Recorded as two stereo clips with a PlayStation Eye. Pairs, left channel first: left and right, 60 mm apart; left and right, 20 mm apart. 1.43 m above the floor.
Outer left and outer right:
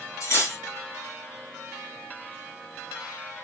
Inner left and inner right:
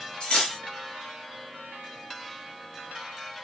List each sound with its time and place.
0.2 s cutlery clinking: 60° left (ahead or behind), 1.5 m